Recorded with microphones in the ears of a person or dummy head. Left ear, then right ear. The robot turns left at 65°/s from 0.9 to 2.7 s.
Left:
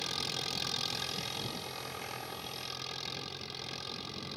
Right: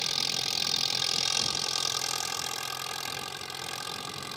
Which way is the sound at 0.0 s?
25° right.